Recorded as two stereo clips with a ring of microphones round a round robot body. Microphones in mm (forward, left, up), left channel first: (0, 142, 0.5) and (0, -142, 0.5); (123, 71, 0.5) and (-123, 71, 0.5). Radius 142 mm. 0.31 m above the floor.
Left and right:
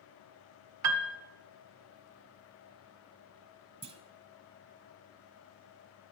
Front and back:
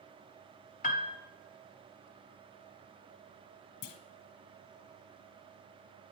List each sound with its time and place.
0.8 s a piano: 60° right, 0.5 m
3.8 s a clunk: 15° right, 0.7 m